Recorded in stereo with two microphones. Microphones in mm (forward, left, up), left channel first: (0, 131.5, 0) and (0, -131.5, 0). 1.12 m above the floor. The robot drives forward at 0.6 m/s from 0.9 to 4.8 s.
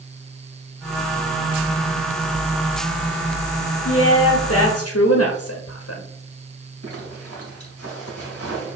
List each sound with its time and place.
3.9 s a woman speaking: 75° left (ahead or behind), 1.0 m
6.8 s a zipper: 75° right (ahead or behind), 3 m